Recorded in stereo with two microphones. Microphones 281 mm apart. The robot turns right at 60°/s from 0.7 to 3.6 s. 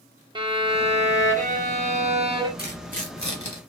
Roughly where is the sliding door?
I don't hear a sliding door.